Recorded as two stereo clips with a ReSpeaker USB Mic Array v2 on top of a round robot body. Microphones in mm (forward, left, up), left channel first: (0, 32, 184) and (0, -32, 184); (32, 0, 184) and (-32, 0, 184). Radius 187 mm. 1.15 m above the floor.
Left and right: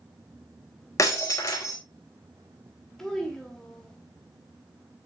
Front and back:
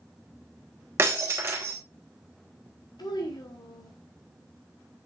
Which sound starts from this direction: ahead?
A child speaking, at 3.0 s.